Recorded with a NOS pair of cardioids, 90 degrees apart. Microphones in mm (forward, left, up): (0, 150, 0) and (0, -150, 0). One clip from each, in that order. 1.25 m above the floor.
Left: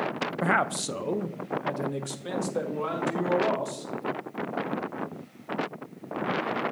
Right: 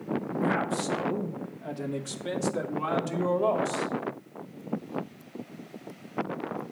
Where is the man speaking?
45° left, 0.7 m; by 3.9 s 10° right, 2 m.